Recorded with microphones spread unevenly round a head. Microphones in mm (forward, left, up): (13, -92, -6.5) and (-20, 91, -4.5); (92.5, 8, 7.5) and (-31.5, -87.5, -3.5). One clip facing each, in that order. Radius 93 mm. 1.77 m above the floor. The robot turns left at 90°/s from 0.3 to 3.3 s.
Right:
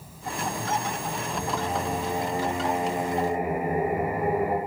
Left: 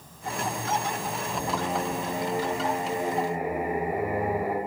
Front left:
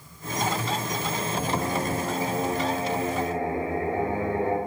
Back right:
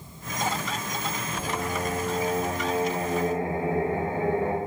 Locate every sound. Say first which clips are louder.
1.3 s singing: even, front left 3 dB; 60° left, 1.2 m; by 4.6 s 115° right, 1.2 m